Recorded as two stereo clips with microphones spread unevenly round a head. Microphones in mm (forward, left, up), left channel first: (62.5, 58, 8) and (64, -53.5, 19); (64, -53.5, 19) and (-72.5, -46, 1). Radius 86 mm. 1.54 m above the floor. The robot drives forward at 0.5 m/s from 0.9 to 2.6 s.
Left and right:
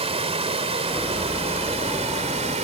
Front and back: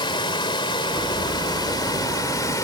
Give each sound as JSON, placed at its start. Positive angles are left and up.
{"t": 0.0, "sound": "running water", "azimuth_deg": -60}